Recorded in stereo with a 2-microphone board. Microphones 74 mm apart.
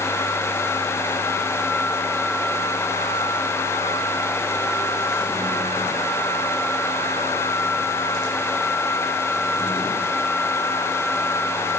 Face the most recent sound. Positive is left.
No sound to turn to.